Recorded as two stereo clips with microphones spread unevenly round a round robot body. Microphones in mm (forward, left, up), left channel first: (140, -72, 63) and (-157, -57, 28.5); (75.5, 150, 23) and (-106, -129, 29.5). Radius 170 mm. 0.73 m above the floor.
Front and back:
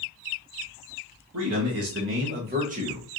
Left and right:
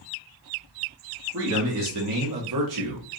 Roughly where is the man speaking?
Behind.